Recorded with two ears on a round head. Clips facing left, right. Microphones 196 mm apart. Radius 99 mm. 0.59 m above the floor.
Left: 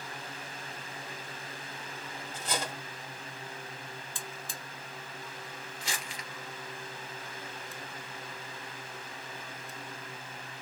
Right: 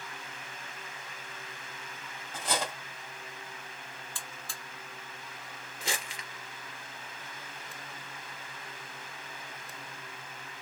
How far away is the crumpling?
About 2 m.